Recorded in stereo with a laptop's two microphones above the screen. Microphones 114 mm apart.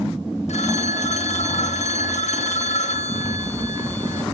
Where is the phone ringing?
85° left, 1.2 m.